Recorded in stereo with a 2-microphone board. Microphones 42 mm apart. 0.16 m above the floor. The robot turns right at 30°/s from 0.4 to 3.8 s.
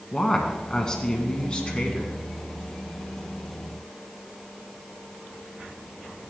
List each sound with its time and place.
0.1 s a woman speaking: 20° left, 1.7 m; by 2.1 s 75° left, 1.7 m